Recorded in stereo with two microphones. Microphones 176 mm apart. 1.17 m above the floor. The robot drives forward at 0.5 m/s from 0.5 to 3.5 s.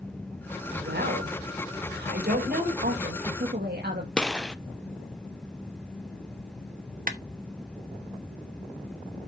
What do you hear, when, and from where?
0.7 s a woman speaking: 75° right (ahead or behind), 4 m; by 2.7 s 65° right (ahead or behind), 4.5 m
2.8 s a woman speaking: 70° right (ahead or behind), 1.9 m; by 4.1 s 65° right (ahead or behind), 2 m
4.2 s a gunshot: 5° left (ahead or behind), 0.6 m
7.1 s a clap: 55° right (ahead or behind), 1.1 m